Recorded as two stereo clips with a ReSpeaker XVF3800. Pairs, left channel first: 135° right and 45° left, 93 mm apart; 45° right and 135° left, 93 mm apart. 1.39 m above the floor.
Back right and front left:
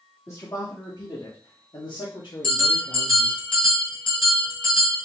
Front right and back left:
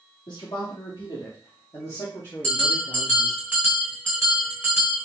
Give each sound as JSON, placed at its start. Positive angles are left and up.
{"t": 0.3, "sound": "a man speaking", "azimuth_deg": -80, "distance_m": 2.5}
{"t": 2.4, "sound": "a bell", "azimuth_deg": -115, "distance_m": 4.5}